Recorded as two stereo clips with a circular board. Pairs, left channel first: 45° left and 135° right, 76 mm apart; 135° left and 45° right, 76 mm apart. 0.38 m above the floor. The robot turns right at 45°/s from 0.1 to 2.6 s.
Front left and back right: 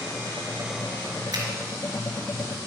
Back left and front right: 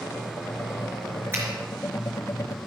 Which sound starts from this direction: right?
A finger snap, at 1.3 s.